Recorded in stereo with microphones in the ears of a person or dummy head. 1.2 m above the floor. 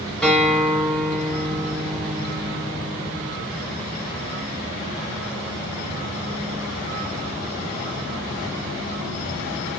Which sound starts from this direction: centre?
A guitar, at 0.2 s.